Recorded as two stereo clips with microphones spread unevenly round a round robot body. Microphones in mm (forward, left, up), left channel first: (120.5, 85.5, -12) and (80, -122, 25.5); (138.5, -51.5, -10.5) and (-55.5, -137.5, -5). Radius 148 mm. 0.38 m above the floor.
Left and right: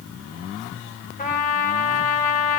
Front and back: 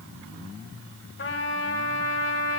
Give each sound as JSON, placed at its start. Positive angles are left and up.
{"t": 1.2, "sound": "a trumpet", "azimuth_deg": 45, "distance_m": 2.5}